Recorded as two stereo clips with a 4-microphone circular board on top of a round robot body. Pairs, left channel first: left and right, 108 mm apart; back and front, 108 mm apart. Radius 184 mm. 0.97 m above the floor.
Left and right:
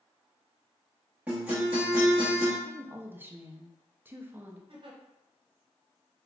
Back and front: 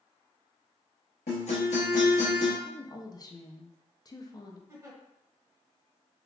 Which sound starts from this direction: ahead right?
A giggle, at 4.7 s.